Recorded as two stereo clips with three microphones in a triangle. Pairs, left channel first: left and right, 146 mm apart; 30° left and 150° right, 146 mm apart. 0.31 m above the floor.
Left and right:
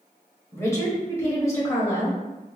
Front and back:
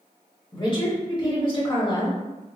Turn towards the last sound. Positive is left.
turn(degrees=40)